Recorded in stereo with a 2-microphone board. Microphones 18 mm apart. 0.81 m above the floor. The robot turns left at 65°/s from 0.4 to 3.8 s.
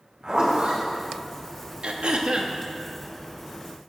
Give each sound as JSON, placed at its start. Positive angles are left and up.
{"t": 0.2, "sound": "a zipper", "side_deg": -40, "distance_m": 4.5}
{"t": 1.8, "sound": "throat clearing", "azimuth_deg": -85, "distance_m": 0.9}